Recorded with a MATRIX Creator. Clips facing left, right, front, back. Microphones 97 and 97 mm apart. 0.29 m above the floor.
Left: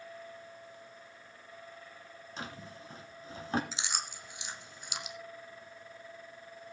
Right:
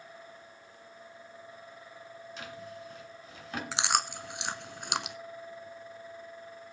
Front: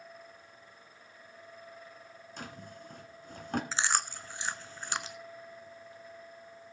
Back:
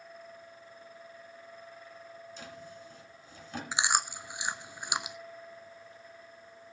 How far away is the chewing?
About 0.7 m.